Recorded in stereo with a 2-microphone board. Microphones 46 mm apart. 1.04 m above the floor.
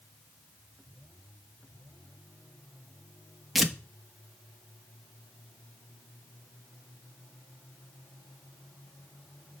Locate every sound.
3.5 s tearing paper: centre (ahead or behind), 1.0 m